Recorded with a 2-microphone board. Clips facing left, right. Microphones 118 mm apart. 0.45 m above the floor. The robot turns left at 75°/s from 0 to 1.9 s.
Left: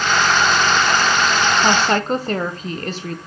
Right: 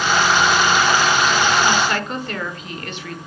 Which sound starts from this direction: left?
A woman speaking, at 1.6 s.